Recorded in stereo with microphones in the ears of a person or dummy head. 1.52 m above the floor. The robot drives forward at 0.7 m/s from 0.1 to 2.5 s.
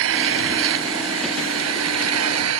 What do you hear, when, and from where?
0.0 s an engine running: 75° right (ahead or behind); by 2.6 s 85° right